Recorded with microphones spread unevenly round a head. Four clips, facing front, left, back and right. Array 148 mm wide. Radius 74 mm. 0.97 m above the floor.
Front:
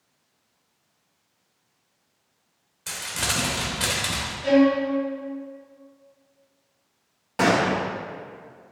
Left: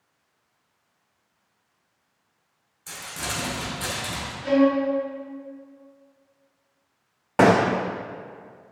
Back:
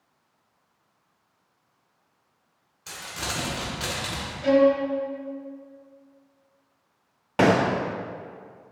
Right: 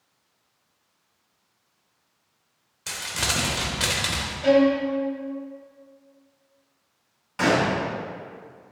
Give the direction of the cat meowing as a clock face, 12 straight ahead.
I don't hear a cat meowing.